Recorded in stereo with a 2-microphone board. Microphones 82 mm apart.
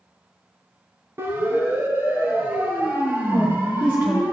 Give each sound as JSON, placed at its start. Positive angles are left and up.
{"t": 1.2, "sound": "a siren", "side_deg": -30, "distance_m": 3.0}
{"t": 3.3, "sound": "a woman speaking", "side_deg": -25, "distance_m": 2.5}